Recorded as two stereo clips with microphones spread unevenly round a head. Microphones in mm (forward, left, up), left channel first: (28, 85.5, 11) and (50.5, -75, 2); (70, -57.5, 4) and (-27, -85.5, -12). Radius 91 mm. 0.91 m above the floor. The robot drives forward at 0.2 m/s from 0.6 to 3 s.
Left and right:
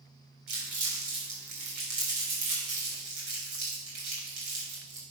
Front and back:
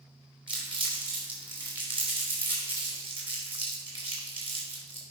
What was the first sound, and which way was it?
Crumpling, 130° right.